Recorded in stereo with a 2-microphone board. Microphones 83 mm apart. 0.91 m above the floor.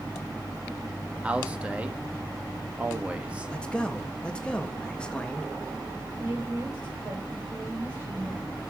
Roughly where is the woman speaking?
Right.